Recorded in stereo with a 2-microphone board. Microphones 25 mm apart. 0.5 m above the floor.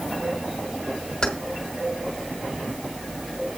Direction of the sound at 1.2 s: 25° left (ahead or behind).